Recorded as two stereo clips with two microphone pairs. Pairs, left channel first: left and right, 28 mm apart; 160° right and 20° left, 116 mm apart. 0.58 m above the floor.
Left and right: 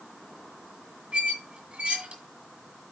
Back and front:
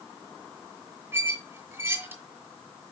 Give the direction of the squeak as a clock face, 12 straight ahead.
2 o'clock.